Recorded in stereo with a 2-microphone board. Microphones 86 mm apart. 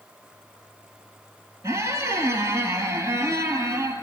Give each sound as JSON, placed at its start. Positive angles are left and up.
{"t": 1.6, "sound": "a squeak", "side_deg": -35, "distance_m": 0.5}